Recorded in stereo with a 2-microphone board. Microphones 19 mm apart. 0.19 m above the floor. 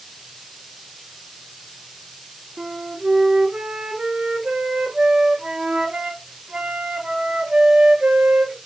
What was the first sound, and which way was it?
A flute, 70° right (ahead or behind).